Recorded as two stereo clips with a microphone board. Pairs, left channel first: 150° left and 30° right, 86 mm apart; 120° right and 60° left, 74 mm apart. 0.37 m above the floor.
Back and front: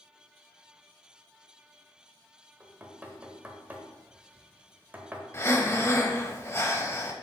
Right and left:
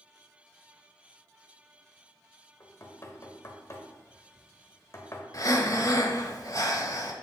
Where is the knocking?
95° right, 0.9 m.